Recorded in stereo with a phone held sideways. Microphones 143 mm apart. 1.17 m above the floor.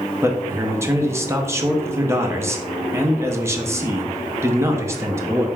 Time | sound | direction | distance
0.2 | a man speaking | 20° right (ahead or behind) | 0.6 m